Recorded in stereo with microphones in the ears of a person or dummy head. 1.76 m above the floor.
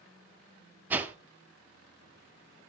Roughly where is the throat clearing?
No throat clearing in this recording.